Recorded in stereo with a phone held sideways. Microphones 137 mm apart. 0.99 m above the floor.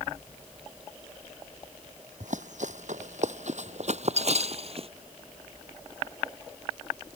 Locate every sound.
2.2 s running footsteps: 70° right (ahead or behind); by 4.9 s 50° right (ahead or behind)